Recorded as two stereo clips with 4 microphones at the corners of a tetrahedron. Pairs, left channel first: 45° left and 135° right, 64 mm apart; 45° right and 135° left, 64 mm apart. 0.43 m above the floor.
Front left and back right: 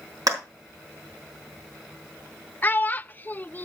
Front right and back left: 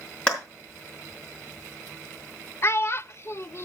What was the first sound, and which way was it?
A clap, 115° right.